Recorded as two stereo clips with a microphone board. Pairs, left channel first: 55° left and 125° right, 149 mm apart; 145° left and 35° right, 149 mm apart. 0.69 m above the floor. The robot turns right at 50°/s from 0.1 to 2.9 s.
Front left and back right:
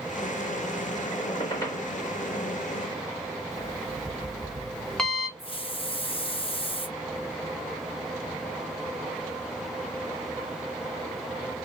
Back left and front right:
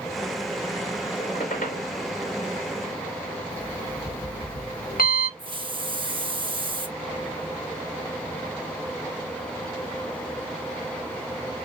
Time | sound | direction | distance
1.2 | a squeak | 100° left | 2.5 m
3.5 | an alarm clock | 145° left | 1.3 m
5.4 | a hiss | 15° left | 0.7 m